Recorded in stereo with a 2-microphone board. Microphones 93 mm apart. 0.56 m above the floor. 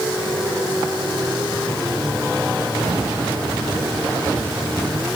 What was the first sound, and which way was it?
Only background noise.